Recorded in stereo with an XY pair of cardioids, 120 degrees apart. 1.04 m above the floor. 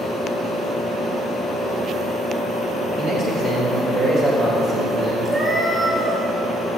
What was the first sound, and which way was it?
A man speaking, 65° right.